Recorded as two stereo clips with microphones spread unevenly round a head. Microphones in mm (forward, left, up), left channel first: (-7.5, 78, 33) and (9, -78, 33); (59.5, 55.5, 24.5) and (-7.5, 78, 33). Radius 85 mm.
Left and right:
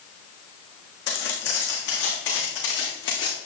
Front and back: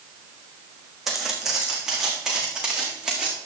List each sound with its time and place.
1.1 s footsteps: 75° left, 4 m; by 3.4 s 80° left, 5 m